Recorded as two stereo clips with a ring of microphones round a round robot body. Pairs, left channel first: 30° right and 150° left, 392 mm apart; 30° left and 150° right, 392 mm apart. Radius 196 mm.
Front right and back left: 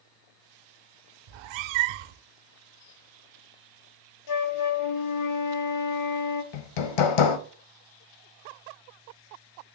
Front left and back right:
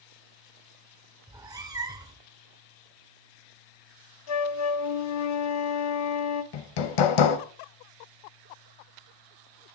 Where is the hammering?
5° right, 0.8 m.